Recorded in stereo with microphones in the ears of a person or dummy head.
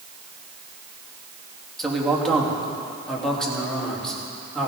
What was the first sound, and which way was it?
A man speaking, 5° left (ahead or behind).